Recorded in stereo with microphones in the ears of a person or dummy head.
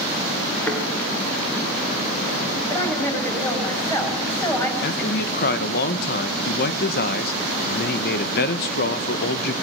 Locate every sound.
0.7 s a thud: 5° left (ahead or behind), 6 m
2.7 s a woman speaking: 15° left (ahead or behind), 8 m
4.8 s a man speaking: 60° left (ahead or behind), 1.6 m